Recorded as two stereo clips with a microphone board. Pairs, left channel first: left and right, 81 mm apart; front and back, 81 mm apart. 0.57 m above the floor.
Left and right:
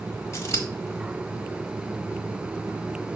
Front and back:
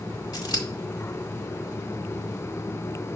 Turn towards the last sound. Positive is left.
turn(degrees=35)